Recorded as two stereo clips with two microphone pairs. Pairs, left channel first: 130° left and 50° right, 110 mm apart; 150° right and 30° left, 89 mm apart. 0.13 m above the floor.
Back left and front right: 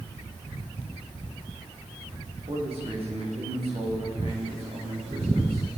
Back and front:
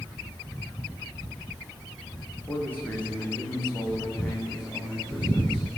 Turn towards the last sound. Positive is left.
turn(degrees=-75)